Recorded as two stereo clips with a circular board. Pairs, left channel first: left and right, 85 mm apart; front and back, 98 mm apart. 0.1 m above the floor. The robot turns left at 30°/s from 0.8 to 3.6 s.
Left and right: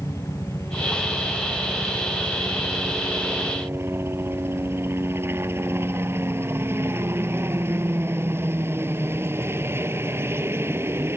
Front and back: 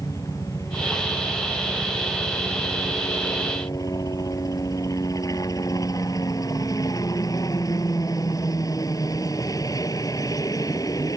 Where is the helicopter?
45° left; by 11.2 s 40° right.